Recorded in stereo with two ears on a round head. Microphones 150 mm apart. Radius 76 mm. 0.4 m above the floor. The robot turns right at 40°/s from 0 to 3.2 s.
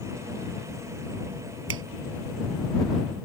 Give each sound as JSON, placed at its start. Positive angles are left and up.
{"t": 1.7, "sound": "a finger snap", "side_deg": -80}